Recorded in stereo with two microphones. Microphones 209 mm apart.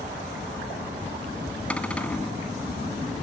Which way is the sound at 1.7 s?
5° left (ahead or behind).